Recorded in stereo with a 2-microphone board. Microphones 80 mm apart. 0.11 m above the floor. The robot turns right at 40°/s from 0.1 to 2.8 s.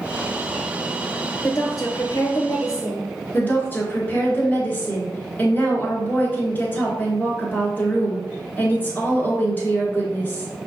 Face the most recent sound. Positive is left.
turn(degrees=25)  # may be behind; listen again after turning